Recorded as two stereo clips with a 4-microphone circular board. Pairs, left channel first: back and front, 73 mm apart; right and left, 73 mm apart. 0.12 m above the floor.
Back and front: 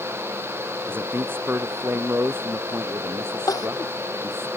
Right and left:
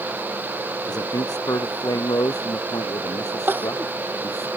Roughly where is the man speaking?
Ahead right.